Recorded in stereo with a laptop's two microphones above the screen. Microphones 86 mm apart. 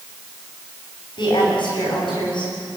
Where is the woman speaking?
65° left (ahead or behind), 8 m.